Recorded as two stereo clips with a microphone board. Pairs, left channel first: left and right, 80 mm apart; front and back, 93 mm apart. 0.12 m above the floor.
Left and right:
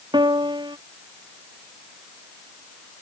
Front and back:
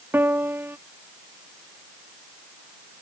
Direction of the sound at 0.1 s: 110° right.